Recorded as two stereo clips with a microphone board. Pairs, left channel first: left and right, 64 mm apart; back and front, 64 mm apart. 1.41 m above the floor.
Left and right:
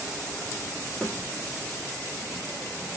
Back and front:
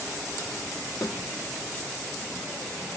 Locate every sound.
1.0 s a snare drum: 155° left, 1.2 m